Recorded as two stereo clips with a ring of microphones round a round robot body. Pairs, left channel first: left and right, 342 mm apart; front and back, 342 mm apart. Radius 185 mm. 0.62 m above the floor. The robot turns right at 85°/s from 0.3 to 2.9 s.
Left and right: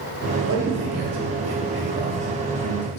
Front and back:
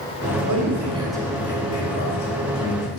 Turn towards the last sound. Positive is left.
turn(degrees=60)